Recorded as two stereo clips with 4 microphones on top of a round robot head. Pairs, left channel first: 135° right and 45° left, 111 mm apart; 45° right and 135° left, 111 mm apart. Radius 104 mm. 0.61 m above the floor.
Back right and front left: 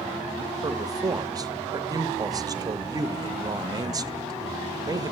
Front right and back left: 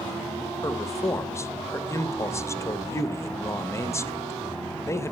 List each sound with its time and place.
0.6 s a man speaking: 5° left, 1.0 m